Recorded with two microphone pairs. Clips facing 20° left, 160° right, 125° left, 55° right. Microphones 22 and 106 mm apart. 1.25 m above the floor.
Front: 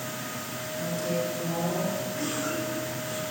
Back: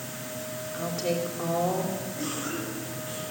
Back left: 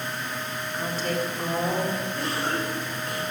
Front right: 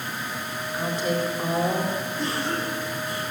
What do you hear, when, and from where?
0.7 s a woman speaking: 135° right, 4 m
2.2 s a cough: 95° left, 7 m